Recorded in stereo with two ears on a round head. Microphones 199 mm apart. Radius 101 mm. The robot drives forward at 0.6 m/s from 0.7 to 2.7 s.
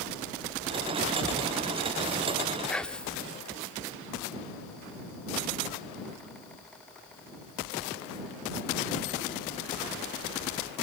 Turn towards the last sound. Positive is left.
turn(degrees=5)  # may be behind; listen again after turning